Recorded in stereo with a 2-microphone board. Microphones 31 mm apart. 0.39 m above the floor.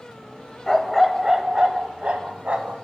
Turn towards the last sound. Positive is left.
turn(degrees=-50)  # may be behind; listen again after turning